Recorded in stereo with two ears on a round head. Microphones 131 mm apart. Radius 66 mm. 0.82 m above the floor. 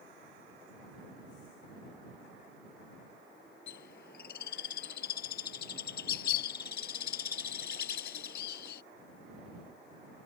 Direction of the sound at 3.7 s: 80° left.